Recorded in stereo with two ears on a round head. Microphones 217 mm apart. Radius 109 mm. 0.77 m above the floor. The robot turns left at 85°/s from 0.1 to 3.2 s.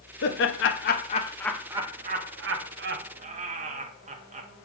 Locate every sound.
0.2 s laughter: 45° left (ahead or behind), 0.6 m; by 4.5 s 30° right (ahead or behind), 0.6 m